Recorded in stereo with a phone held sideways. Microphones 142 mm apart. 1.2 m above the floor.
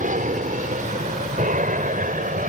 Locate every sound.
0.0 s an aircraft: 60° right (ahead or behind); by 2.5 s 65° right (ahead or behind)